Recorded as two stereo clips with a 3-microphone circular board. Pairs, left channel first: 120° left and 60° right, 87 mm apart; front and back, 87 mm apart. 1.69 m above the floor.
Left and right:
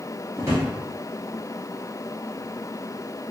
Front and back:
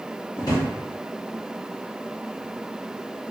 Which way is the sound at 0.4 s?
15° right.